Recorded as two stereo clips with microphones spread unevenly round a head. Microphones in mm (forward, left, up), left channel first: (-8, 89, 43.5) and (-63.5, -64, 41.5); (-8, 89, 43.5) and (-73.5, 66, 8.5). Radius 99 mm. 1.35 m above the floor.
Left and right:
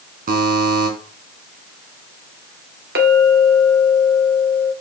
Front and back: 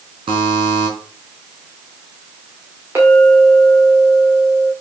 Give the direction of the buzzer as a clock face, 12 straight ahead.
5 o'clock.